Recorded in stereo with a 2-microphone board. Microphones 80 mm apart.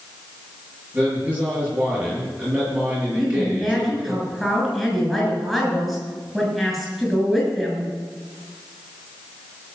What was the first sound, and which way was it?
A man speaking, 20° right (ahead or behind).